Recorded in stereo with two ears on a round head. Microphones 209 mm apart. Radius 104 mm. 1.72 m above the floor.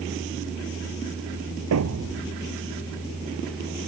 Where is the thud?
75° right (ahead or behind).